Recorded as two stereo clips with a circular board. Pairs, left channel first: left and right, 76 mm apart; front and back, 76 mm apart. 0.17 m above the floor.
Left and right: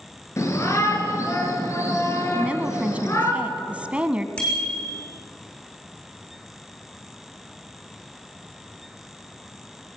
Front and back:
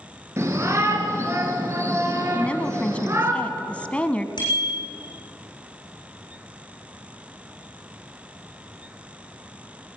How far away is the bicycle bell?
About 7 m.